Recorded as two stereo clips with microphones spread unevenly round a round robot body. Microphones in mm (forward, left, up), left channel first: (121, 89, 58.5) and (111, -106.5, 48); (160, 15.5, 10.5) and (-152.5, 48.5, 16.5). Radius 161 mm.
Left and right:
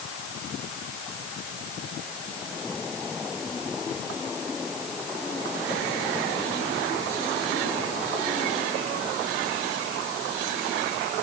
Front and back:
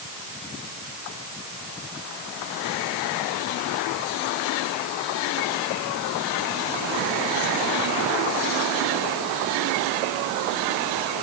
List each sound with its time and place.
Only background noise.